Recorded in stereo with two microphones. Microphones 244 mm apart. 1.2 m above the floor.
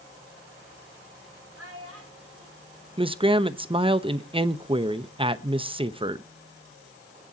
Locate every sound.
1.6 s a child speaking: 75° right (ahead or behind), 4 m
3.0 s a man speaking: 20° right (ahead or behind), 0.8 m